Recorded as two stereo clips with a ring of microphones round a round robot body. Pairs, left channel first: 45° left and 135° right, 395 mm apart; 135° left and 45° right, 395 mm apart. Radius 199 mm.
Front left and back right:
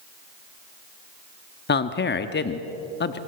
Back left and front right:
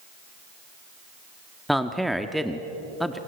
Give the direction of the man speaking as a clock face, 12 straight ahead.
10 o'clock.